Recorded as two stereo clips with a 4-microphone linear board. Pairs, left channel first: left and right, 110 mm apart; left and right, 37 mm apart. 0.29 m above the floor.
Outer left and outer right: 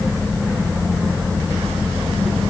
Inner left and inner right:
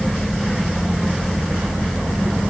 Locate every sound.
Only background noise.